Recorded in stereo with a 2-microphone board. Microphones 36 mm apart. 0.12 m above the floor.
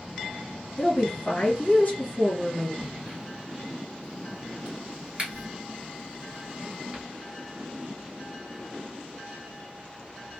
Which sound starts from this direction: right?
A crack, at 2.8 s.